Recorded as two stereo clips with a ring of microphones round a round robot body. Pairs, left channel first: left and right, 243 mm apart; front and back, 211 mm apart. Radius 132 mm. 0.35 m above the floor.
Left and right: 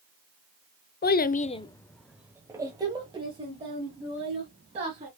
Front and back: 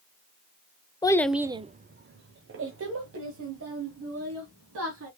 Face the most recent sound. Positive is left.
turn(degrees=-155)